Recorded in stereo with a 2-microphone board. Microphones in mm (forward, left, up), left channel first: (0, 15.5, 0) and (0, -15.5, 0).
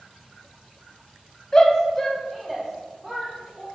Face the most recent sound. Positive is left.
turn(degrees=-15)  # may be behind; listen again after turning